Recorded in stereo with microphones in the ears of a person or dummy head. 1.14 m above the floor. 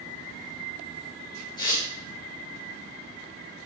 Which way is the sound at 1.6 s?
30° left (ahead or behind).